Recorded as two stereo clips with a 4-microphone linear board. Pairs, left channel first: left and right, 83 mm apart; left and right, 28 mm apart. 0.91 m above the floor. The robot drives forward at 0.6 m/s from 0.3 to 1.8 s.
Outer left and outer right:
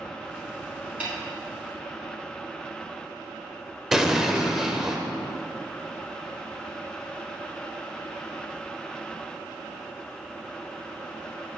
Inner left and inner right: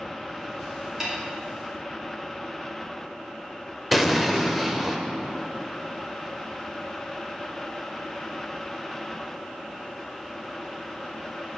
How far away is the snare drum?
About 2.5 m.